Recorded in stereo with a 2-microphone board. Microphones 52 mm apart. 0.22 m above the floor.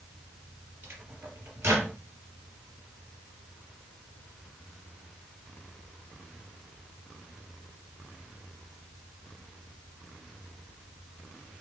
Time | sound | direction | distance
0.8 | a microwave | 45° right (ahead or behind) | 3.5 m